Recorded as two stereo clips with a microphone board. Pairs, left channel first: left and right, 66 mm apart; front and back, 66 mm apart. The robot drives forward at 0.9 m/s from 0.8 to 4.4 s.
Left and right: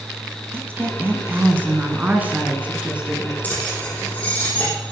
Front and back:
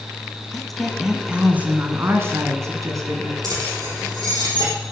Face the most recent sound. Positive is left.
turn(degrees=160)